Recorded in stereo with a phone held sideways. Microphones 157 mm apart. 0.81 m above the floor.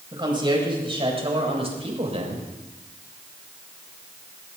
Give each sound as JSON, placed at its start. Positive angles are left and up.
{"t": 0.1, "sound": "a woman speaking", "side_deg": -30, "distance_m": 5.0}